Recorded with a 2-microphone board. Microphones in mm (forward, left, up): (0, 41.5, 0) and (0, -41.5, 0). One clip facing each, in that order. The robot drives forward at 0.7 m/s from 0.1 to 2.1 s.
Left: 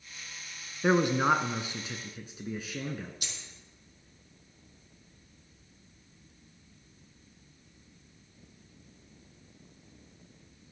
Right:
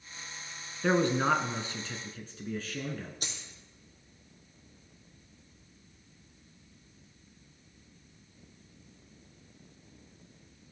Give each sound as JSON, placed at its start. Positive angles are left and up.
{"t": 0.8, "sound": "a man speaking", "side_deg": 15, "distance_m": 1.1}
{"t": 3.2, "sound": "a dropped coin", "side_deg": -40, "distance_m": 2.5}